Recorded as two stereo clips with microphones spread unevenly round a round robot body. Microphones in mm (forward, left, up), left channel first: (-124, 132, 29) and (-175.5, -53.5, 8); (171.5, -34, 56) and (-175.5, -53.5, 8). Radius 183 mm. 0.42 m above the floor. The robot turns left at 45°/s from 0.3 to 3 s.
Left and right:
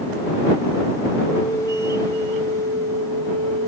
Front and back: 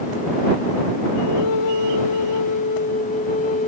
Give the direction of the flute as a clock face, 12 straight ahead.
12 o'clock.